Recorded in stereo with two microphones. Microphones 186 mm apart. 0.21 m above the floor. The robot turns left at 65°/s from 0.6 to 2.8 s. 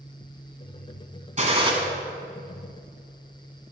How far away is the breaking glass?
I don't hear breaking glass.